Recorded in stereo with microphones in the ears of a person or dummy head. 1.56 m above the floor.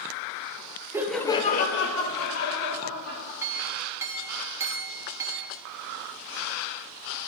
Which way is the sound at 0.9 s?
15° right (ahead or behind).